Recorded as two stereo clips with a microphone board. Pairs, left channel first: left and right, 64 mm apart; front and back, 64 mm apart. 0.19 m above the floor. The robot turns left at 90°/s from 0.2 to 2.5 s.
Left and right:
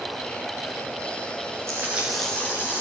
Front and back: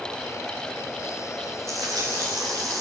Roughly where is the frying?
Behind right.